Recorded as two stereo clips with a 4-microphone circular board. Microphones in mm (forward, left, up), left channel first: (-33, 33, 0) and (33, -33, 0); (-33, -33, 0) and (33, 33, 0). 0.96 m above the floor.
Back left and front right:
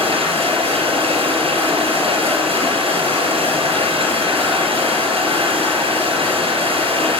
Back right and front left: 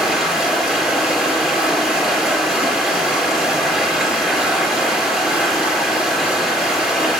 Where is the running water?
45° right, 4 m.